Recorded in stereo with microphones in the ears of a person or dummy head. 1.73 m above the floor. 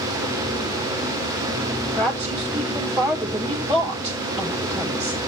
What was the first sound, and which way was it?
A woman speaking, 20° right (ahead or behind).